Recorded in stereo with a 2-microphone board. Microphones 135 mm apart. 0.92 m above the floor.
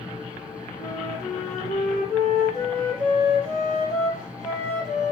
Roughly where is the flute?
Left.